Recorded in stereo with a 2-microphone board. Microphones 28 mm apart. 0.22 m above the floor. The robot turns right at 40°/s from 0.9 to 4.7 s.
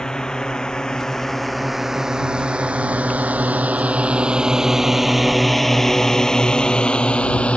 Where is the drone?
30° left (ahead or behind); by 7.6 s 55° left (ahead or behind).